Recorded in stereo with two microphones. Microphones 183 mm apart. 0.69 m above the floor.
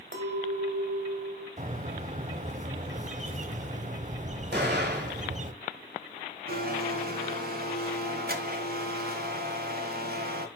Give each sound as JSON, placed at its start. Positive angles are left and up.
{"t": 0.1, "sound": "a clink", "side_deg": -80, "distance_m": 2.5}
{"t": 1.6, "sound": "a bird", "side_deg": -45, "distance_m": 0.6}
{"t": 4.5, "sound": "an explosion", "side_deg": -65, "distance_m": 3.0}
{"t": 6.5, "sound": "a blender", "side_deg": -60, "distance_m": 1.2}